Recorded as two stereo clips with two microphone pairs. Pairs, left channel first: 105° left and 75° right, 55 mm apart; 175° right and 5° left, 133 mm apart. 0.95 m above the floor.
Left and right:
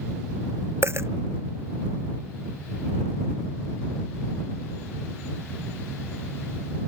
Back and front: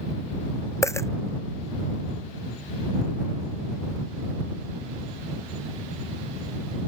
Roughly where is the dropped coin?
Right.